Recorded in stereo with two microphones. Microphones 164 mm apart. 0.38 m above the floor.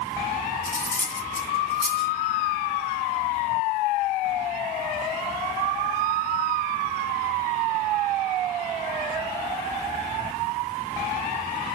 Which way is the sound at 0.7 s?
60° left (ahead or behind).